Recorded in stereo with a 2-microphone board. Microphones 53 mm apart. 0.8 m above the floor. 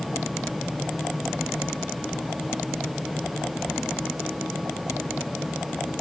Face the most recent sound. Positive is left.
No sound to turn to.